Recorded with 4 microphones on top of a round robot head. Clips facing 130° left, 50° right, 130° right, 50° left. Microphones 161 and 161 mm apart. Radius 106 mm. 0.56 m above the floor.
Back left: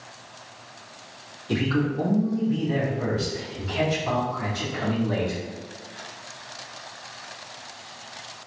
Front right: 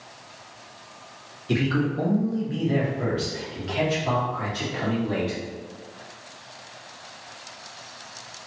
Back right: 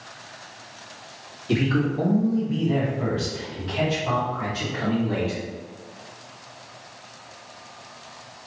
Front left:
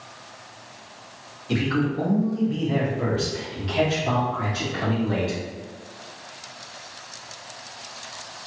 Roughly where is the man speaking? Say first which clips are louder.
Even, back right 1 dB; right.